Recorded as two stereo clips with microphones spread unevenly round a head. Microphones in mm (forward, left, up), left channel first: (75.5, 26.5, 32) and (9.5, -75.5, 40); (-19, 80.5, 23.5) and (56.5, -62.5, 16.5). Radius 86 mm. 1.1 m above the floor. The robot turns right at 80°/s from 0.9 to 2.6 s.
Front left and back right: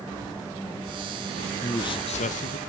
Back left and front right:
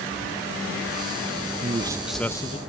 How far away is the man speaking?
About 0.9 m.